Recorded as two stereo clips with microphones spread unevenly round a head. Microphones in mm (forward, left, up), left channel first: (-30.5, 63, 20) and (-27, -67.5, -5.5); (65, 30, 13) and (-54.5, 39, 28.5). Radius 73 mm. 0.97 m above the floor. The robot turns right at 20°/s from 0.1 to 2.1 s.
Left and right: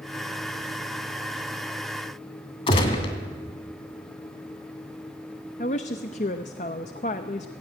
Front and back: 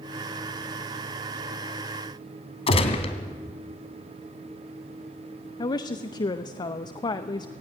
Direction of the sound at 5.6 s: 45° left.